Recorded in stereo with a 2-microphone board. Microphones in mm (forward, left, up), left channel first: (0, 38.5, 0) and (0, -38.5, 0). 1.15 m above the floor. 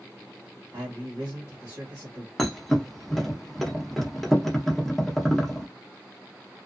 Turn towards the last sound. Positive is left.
turn(degrees=5)  # may be behind; listen again after turning